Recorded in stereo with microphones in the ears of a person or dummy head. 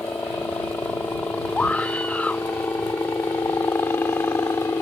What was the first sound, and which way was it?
A helicopter, 10° left (ahead or behind).